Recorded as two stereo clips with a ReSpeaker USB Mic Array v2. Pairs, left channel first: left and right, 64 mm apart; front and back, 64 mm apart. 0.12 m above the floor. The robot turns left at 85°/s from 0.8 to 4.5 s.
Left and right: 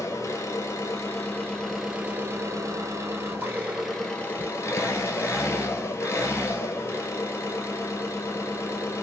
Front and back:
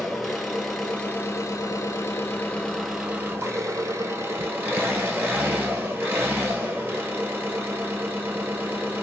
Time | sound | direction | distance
0.0 | an engine running | 85° left | 0.8 m